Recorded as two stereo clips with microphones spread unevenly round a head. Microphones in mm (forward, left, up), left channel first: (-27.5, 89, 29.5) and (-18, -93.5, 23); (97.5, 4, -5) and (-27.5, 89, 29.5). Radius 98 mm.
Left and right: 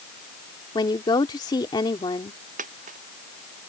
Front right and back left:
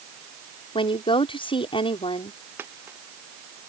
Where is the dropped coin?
135° right.